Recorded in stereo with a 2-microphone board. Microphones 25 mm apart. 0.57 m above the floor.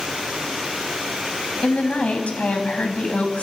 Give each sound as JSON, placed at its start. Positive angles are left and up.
{"t": 1.6, "sound": "a woman speaking", "side_deg": 70, "distance_m": 3.5}